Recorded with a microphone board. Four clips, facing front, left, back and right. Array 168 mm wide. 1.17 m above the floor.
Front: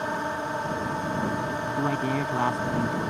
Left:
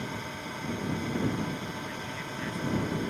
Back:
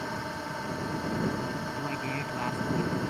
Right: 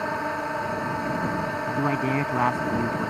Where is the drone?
60° right.